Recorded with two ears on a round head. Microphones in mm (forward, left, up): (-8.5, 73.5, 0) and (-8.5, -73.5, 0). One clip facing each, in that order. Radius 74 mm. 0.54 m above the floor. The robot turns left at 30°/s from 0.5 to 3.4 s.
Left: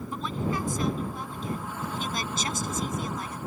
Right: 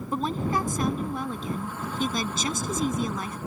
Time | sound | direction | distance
0.1 | a woman speaking | 35° right | ?